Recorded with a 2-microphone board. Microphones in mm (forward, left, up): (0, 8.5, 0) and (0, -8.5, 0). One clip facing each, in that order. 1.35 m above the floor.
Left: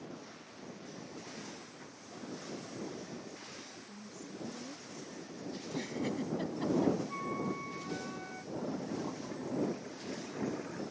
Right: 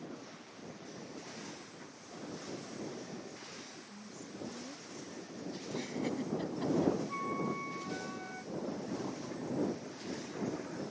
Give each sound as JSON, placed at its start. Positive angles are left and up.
{"t": 3.9, "sound": "a woman speaking", "side_deg": 50}
{"t": 5.6, "sound": "a giggle", "side_deg": 40}
{"t": 7.1, "sound": "a flute", "side_deg": -20}
{"t": 8.5, "sound": "a toilet flushing", "side_deg": 60}